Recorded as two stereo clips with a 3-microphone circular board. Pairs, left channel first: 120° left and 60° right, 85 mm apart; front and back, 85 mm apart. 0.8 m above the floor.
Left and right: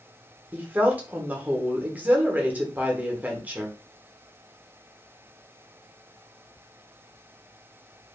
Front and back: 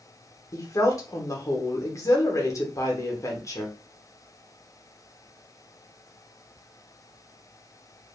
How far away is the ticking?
I don't hear ticking.